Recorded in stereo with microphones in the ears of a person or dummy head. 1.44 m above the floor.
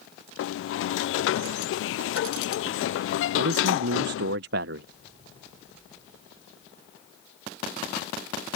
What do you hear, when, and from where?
0.4 s a sliding door: 70° left (ahead or behind)
3.4 s a man speaking: 70° right (ahead or behind)